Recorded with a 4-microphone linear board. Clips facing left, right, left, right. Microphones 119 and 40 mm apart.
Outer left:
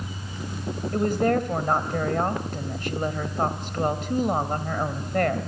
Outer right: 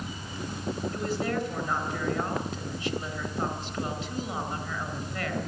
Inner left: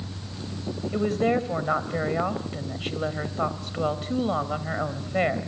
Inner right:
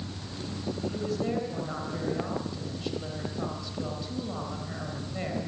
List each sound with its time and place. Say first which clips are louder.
0.9 s a woman speaking: outer left 11 dB, inner left 10 dB; 55° left (ahead or behind), 3 m